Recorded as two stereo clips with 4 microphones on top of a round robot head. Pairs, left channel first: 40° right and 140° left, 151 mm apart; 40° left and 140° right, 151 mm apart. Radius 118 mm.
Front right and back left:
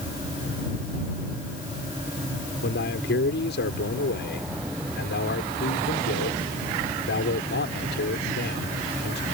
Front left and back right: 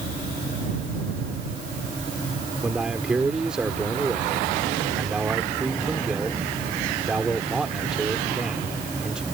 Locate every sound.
2.6 s a man speaking: 55° right